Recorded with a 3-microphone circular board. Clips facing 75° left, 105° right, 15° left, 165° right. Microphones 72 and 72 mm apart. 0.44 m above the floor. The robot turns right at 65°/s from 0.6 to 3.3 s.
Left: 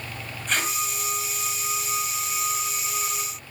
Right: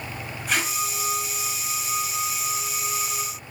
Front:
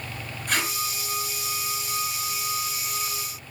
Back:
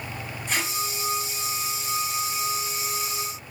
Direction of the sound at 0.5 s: 20° right.